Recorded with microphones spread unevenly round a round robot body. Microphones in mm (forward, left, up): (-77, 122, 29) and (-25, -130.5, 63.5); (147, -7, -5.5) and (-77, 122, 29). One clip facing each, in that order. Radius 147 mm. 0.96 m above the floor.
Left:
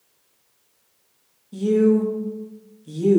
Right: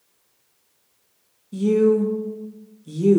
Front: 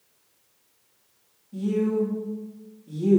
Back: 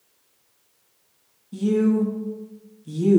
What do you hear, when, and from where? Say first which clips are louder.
1.5 s a woman speaking: even, back 4 dB; 160° right, 1.5 m